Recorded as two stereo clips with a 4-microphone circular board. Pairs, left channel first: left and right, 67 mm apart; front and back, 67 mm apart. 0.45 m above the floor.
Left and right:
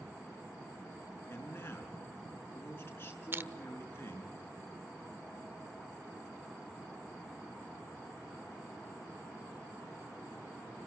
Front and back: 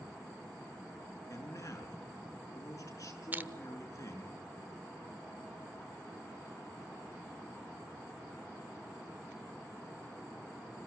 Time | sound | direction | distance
1.3 | a man speaking | 35° left | 5.5 m
3.3 | crushing | 130° right | 0.9 m